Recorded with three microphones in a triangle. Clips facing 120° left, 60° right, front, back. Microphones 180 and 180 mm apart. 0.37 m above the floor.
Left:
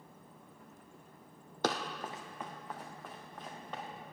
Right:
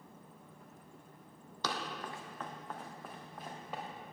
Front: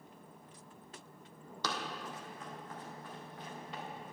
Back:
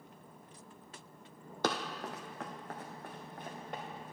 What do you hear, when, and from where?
1.6 s running footsteps: 150° left, 0.8 m; by 3.8 s 140° right, 3 m